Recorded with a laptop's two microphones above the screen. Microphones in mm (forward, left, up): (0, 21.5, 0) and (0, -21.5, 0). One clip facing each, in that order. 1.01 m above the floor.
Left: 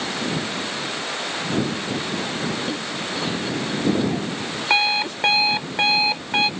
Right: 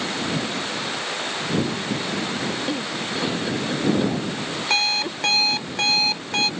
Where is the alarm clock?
20° left (ahead or behind).